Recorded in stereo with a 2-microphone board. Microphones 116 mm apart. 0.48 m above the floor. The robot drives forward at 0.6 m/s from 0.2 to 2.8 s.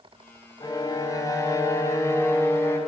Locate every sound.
0.6 s a violin: 35° left (ahead or behind), 2 m; by 2.8 s 25° left (ahead or behind), 3.5 m